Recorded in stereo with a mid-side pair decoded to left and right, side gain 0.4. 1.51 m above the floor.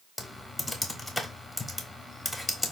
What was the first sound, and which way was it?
Typing on a keyboard, 20° left.